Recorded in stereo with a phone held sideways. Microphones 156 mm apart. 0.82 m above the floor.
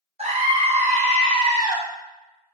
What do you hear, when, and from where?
0.2 s a scream: 40° right (ahead or behind), 1.0 m; by 1.8 s 25° right (ahead or behind), 0.9 m